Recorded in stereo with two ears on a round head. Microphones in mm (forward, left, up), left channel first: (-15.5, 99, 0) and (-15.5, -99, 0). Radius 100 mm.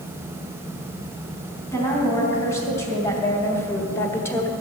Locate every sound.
1.7 s a woman speaking: 15° left (ahead or behind), 4.5 m; by 4.5 s 10° left (ahead or behind), 1.3 m